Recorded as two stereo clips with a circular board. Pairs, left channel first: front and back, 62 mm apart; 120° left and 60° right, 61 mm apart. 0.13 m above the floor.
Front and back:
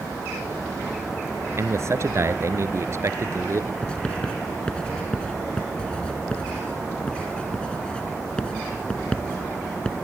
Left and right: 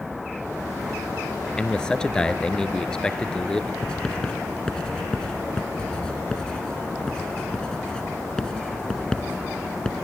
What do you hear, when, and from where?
1.6 s a man speaking: 165° right, 1.7 m
3.8 s writing: 60° left, 1.1 m